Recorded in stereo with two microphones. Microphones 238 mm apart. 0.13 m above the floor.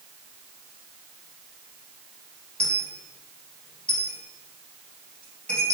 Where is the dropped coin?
5° left (ahead or behind), 1.6 m.